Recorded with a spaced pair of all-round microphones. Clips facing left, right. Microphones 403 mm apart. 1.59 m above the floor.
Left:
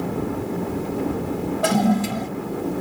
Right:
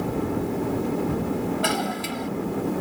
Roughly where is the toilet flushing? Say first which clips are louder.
Left 8 dB; left.